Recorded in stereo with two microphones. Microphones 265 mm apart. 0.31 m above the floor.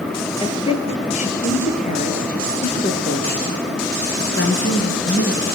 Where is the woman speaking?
20° left (ahead or behind), 5.5 m; by 5.6 s 55° left (ahead or behind), 5 m.